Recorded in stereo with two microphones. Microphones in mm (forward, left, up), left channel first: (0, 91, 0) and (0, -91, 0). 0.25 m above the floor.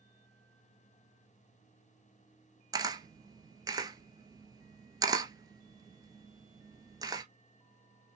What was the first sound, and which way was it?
A camera shutter, 25° right (ahead or behind).